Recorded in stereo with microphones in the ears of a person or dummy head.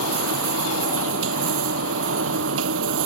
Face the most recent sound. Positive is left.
turn(degrees=-85)